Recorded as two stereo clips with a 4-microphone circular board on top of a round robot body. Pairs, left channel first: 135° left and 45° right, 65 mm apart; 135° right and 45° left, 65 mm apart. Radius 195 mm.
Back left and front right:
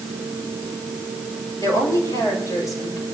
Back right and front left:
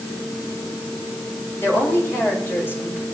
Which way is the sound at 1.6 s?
170° left.